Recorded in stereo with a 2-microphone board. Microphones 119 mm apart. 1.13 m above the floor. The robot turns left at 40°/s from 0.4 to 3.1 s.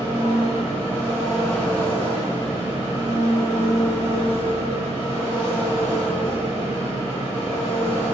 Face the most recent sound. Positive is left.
turn(degrees=105)